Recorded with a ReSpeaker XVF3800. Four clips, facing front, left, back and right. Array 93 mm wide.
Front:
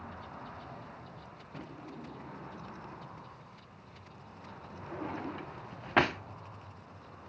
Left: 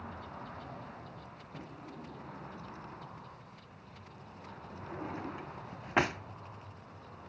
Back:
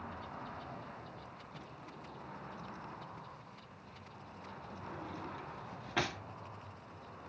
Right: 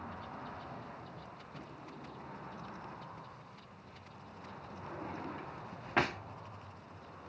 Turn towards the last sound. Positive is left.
turn(degrees=15)